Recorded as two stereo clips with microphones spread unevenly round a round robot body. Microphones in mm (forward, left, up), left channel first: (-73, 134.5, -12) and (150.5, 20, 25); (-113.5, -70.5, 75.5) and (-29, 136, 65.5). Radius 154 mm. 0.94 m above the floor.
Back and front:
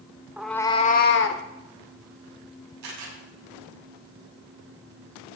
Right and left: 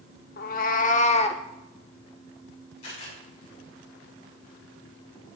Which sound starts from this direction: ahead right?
A camera shutter, at 2.8 s.